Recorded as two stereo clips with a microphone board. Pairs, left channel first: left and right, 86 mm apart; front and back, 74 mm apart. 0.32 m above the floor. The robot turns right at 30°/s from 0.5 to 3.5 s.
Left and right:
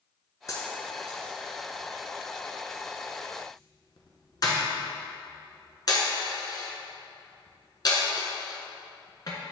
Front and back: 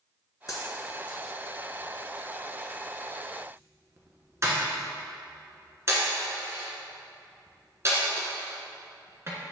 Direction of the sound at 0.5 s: 40° left.